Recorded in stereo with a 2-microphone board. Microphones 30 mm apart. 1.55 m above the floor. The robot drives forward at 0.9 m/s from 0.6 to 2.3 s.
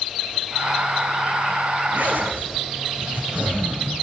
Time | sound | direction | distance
1.9 | a zipper | 80° right | 8 m